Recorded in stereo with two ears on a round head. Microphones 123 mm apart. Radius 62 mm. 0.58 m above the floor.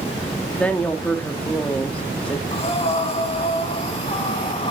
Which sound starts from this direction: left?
Breathing, at 2.5 s.